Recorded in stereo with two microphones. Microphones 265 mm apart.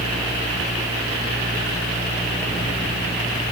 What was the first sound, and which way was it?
Only background noise.